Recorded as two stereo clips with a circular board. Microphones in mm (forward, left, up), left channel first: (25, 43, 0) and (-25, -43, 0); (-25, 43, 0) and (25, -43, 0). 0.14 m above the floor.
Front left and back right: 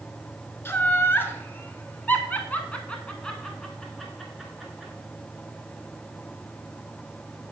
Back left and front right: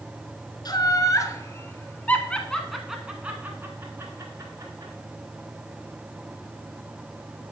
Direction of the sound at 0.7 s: 115° left.